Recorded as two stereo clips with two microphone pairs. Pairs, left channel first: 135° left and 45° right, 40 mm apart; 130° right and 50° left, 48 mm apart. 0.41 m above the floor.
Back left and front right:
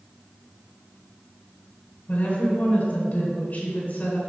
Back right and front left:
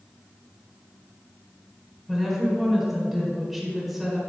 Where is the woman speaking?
135° left, 1.8 m.